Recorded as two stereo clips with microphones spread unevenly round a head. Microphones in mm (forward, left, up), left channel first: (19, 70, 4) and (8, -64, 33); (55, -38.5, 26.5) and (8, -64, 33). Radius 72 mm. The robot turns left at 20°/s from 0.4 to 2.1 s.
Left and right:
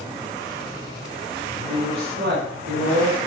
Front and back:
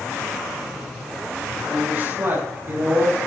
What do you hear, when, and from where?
1.7 s a woman speaking: 105° right, 6.5 m; by 3.2 s 115° right, 6.5 m